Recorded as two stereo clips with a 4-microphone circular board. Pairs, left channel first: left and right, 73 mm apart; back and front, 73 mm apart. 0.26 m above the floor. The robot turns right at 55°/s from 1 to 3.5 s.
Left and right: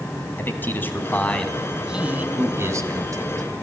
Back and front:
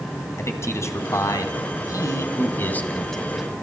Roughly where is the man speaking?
Behind left.